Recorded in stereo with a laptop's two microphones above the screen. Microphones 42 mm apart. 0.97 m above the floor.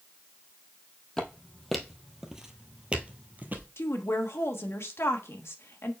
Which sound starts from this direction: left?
A woman speaking, at 3.8 s.